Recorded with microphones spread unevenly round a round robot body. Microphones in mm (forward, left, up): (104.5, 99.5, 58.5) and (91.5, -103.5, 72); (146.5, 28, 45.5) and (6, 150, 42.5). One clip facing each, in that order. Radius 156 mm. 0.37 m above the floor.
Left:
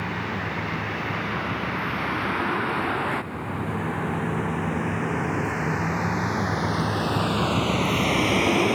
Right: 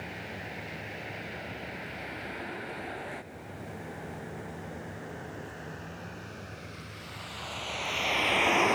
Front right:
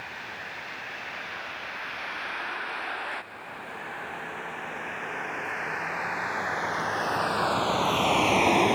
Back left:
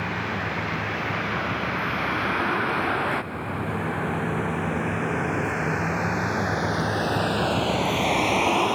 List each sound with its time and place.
0.0 s a vehicle: 120° left; by 8.8 s 30° left